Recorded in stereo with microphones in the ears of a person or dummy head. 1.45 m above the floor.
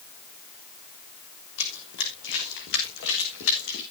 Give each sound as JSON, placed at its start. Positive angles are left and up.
{"t": 1.6, "sound": "running footsteps", "side_deg": 65, "distance_m": 6.0}